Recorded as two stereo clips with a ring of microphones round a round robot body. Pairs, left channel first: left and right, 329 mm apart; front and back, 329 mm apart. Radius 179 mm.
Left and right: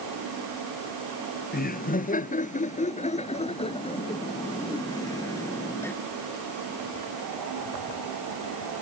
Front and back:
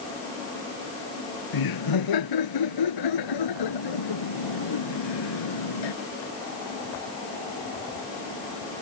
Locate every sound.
1.5 s laughter: 25° left; by 6.0 s 5° left